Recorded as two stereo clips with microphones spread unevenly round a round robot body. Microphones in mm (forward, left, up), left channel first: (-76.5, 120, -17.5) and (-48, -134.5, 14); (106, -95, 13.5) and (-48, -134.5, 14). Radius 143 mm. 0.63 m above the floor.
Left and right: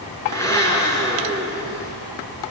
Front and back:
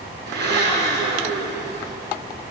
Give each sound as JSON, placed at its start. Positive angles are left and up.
{"t": 0.3, "sound": "a blender", "azimuth_deg": 175, "distance_m": 6.0}